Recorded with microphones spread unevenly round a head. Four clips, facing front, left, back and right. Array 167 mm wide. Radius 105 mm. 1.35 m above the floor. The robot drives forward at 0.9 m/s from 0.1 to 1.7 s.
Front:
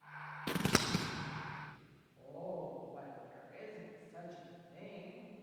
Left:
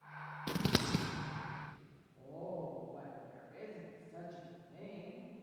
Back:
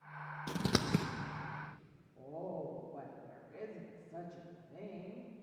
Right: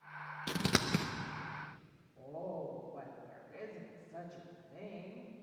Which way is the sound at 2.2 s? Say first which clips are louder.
Right 2 dB, back 1 dB; 170° left.